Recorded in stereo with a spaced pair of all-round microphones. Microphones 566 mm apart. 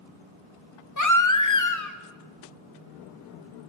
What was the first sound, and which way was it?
A baby crying, 35° left (ahead or behind).